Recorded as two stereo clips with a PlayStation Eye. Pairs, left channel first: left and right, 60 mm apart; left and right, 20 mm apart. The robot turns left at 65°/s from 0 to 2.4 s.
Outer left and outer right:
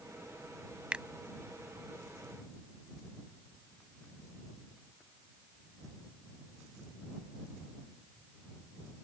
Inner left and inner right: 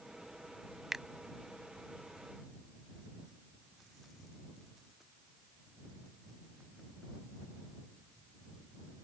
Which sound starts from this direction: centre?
A finger snap, at 0.9 s.